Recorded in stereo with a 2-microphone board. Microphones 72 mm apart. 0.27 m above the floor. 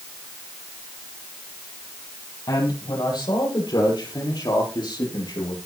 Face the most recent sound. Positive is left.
turn(degrees=80)